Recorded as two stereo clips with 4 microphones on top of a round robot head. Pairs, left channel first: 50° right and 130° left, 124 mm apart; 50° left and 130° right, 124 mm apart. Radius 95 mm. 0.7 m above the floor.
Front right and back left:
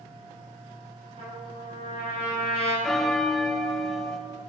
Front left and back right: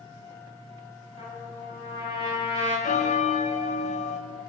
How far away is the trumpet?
About 5.5 m.